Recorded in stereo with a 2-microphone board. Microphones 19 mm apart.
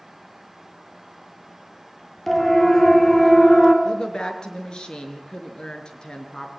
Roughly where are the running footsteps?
I don't hear running footsteps.